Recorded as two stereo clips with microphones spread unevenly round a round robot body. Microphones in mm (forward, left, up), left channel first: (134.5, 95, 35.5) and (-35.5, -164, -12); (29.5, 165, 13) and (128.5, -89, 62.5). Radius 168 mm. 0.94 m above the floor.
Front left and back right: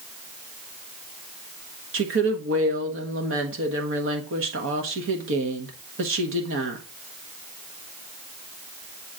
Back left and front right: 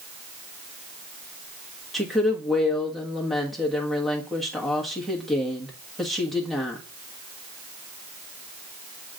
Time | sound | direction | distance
1.9 | a woman speaking | 165° right | 1.2 m